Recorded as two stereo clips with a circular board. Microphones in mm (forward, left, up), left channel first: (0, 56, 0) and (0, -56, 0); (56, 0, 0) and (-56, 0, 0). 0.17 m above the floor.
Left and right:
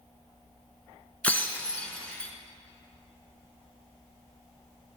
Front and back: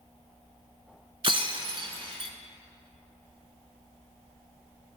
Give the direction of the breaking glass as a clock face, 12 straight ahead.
7 o'clock.